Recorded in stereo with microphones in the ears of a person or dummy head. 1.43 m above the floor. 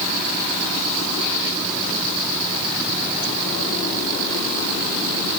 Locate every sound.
Only background noise.